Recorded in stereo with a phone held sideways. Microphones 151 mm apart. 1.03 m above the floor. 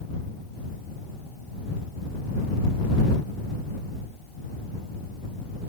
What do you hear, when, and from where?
Only background noise.